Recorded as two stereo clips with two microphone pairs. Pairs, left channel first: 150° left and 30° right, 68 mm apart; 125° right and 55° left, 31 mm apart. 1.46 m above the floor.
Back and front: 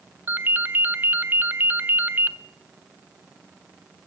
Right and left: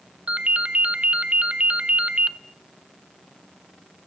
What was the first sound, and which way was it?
A ringtone, 20° left.